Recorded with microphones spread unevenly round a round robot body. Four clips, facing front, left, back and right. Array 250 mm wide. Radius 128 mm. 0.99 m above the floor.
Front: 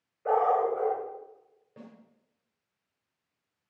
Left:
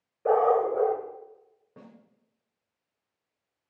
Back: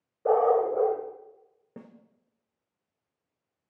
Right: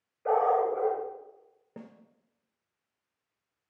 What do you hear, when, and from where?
0.2 s a dog barking: 145° left, 1.2 m
1.8 s a snare drum: 150° right, 1.1 m